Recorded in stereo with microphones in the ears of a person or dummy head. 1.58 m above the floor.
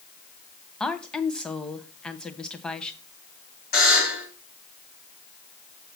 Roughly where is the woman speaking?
Centre.